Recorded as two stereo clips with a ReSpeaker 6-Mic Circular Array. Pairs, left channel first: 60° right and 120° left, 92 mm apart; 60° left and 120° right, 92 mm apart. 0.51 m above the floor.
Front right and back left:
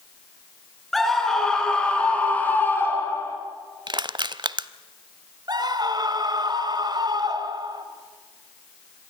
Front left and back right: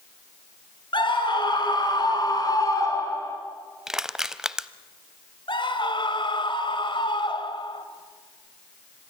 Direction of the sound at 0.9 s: 30° left.